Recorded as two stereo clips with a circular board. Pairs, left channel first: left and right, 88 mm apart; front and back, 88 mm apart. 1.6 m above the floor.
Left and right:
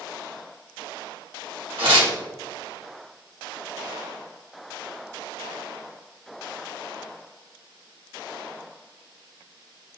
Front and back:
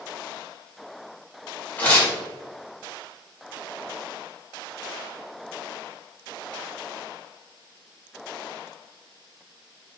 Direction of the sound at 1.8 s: 70° right.